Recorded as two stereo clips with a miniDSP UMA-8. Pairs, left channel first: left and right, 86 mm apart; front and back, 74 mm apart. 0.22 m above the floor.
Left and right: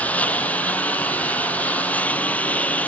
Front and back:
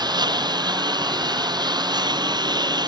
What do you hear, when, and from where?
0.0 s a lawn mower: 165° left